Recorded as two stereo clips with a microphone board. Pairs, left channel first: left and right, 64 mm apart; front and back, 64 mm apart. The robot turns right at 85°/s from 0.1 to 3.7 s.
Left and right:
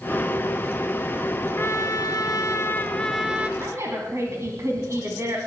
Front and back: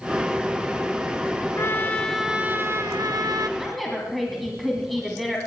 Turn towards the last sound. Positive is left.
turn(degrees=-85)